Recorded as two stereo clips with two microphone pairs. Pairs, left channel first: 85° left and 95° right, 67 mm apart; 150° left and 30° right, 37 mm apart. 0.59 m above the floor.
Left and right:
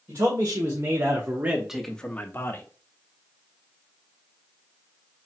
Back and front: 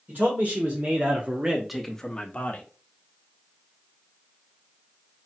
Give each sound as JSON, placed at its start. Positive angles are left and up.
{"t": 0.1, "sound": "a man speaking", "azimuth_deg": -60, "distance_m": 2.0}